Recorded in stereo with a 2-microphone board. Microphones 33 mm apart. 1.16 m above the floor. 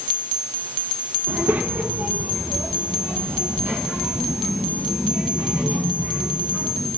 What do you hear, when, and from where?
1.3 s a child speaking: 70° right (ahead or behind), 1.6 m; by 6.9 s 85° right, 7 m